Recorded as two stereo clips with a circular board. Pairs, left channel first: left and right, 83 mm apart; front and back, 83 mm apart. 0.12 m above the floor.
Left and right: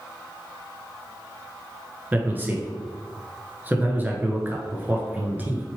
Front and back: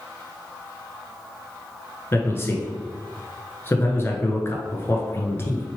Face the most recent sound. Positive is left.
turn(degrees=-35)